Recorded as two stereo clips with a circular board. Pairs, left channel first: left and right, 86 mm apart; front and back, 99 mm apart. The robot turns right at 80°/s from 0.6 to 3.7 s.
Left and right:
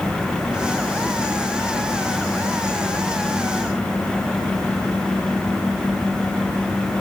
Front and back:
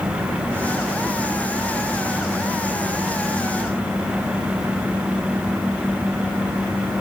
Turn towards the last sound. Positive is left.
No sound to turn to.